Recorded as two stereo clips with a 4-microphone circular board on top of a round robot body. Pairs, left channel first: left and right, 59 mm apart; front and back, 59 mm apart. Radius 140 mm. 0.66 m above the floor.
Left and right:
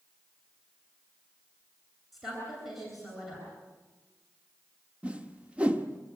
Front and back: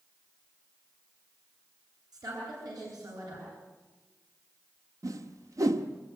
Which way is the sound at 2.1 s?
175° right.